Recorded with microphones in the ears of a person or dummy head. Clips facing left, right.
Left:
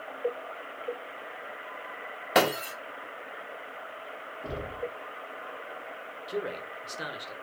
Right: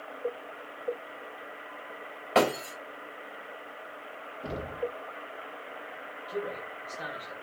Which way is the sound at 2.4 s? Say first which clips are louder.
Even; 15° left (ahead or behind).